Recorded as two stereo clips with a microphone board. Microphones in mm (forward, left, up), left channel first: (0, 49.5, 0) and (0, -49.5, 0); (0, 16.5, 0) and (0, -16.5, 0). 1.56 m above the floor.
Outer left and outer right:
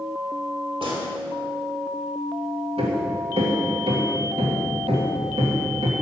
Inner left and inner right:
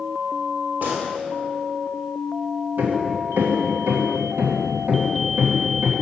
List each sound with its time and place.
0.8 s a gunshot: 65° right (ahead or behind), 3 m
2.8 s hammering: 85° right, 2 m